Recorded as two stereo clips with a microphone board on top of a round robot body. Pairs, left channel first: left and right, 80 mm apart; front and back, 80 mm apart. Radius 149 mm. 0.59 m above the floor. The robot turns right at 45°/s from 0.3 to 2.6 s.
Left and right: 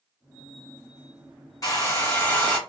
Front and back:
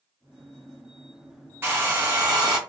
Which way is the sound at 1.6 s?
120° left.